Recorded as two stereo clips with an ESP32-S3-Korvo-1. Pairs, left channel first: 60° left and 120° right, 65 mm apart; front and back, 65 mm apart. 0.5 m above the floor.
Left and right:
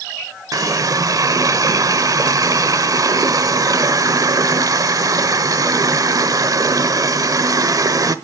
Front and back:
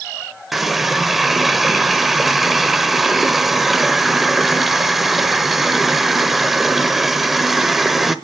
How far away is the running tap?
About 1.1 m.